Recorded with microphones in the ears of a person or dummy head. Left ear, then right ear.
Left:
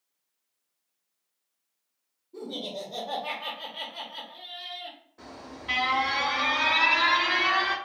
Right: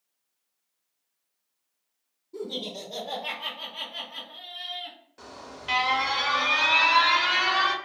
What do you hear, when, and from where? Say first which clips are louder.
2.3 s laughter: right 1 dB; 70° right (ahead or behind), 1.0 m; by 5.0 s 30° right (ahead or behind), 1.7 m
5.2 s an alarm: right 2 dB; 35° right (ahead or behind), 0.8 m